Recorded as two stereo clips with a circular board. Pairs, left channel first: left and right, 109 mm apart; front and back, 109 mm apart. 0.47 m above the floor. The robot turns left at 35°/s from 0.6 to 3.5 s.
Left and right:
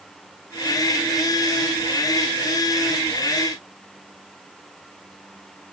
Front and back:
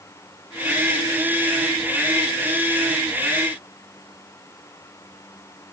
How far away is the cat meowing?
No cat meowing in this recording.